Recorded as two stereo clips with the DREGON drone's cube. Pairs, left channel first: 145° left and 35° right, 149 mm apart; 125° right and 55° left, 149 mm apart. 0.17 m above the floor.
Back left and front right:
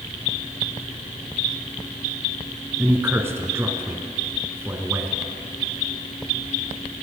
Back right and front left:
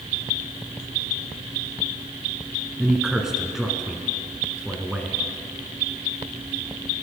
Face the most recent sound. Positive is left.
turn(degrees=-20)